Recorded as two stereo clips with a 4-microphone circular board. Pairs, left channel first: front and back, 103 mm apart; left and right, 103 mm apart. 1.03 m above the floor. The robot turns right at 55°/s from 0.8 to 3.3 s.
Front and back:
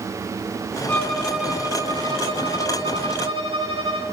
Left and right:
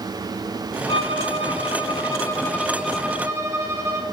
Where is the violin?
75° left, 1.9 m; by 4.0 s 155° right, 1.9 m.